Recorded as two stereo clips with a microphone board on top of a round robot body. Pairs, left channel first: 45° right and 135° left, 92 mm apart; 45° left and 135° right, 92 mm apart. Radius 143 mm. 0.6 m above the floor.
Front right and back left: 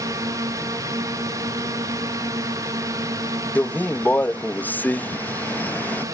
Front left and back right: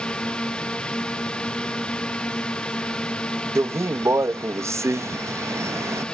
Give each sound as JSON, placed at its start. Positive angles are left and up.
{"t": 0.0, "sound": "a drone", "azimuth_deg": 120}
{"t": 3.5, "sound": "a man speaking", "azimuth_deg": -105}